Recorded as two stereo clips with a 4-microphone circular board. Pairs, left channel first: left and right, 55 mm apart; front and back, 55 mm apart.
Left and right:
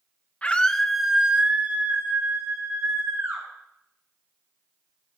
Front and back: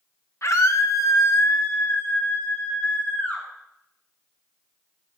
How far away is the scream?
About 1.6 m.